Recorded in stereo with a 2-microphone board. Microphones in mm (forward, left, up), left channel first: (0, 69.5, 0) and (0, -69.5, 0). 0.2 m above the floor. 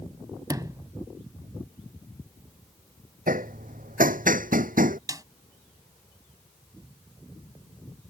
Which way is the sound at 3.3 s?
80° right.